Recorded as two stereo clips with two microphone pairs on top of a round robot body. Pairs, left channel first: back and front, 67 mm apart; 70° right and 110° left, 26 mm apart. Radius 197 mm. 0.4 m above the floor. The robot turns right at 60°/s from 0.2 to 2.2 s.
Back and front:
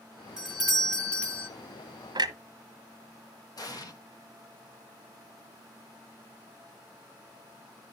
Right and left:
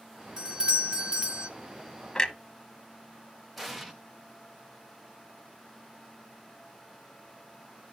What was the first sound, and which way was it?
A doorbell, 60° left.